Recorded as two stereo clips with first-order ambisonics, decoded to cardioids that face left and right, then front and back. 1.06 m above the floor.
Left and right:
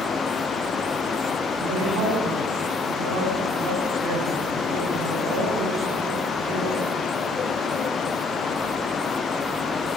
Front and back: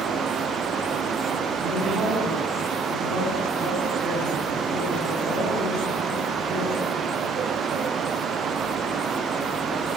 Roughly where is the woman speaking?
Behind right.